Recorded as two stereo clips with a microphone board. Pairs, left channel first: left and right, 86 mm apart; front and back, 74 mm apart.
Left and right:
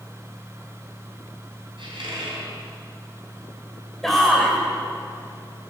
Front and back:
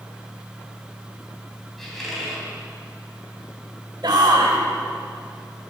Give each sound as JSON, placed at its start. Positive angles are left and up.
{"t": 1.8, "sound": "a squeak", "azimuth_deg": -85, "distance_m": 4.0}
{"t": 4.0, "sound": "a shout", "azimuth_deg": 175, "distance_m": 2.5}